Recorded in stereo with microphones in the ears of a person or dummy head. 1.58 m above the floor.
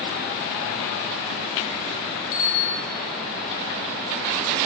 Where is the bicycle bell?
75° left (ahead or behind), 2 m.